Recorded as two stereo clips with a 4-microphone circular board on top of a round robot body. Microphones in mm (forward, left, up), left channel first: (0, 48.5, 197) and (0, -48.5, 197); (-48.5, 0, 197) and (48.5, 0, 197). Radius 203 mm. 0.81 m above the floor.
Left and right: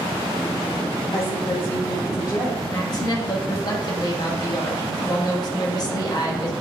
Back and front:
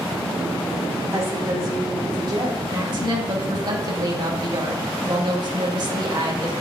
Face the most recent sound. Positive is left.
turn(degrees=45)